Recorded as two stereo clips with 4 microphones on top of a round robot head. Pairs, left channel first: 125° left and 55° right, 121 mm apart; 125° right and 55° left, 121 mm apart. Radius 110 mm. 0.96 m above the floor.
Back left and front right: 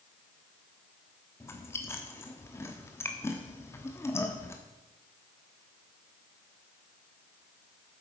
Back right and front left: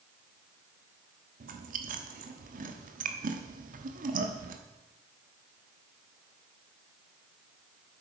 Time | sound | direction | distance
1.4 | chewing | 55° left | 1.0 m